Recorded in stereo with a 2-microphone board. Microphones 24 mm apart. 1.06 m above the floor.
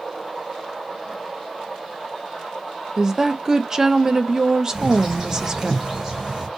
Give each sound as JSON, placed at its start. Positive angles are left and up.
{"t": 3.0, "sound": "a woman speaking", "side_deg": -30, "distance_m": 0.6}
{"t": 4.7, "sound": "a bird", "side_deg": -25, "distance_m": 3.0}